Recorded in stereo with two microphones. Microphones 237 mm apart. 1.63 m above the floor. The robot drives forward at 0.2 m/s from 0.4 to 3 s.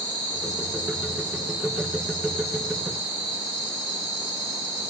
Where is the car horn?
No car horn in this recording.